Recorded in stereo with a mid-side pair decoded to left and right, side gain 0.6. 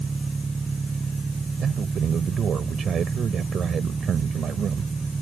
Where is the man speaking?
45° right.